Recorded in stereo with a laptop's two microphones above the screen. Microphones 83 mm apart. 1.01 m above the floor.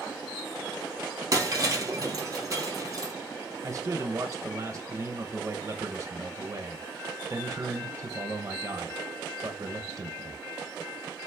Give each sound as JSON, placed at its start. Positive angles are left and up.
{"t": 1.3, "sound": "breaking glass", "side_deg": -40, "distance_m": 2.0}
{"t": 3.6, "sound": "a man speaking", "side_deg": -40, "distance_m": 0.6}